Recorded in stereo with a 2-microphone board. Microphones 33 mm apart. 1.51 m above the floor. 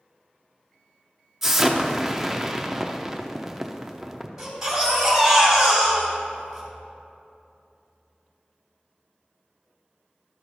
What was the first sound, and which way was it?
An explosion, 10° right (ahead or behind).